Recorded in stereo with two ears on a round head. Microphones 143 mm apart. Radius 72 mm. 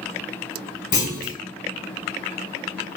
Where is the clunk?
60° left (ahead or behind), 1.5 m.